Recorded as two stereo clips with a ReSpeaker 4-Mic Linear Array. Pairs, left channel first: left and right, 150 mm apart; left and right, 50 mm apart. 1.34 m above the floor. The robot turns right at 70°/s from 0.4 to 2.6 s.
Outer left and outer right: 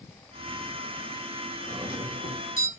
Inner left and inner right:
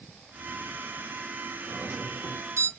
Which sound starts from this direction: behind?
A doorbell, at 1.7 s.